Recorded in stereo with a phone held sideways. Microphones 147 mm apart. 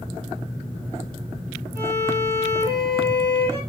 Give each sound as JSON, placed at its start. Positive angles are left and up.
{"t": 1.8, "sound": "a violin", "side_deg": -25, "distance_m": 4.0}